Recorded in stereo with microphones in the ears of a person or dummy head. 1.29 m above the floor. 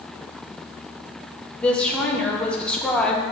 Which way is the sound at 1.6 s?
5° left (ahead or behind).